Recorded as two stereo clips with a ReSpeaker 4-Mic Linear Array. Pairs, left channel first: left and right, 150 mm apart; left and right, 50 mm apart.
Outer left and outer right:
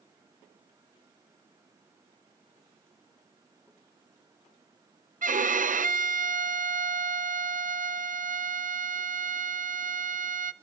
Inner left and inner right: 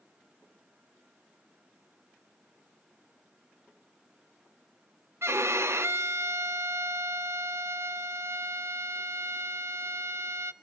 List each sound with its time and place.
5.2 s a violin: 60° right (ahead or behind), 0.6 m